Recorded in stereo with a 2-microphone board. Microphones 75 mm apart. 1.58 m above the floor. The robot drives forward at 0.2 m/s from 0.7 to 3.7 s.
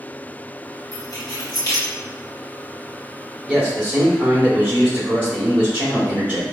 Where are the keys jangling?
50° left (ahead or behind), 1.1 m.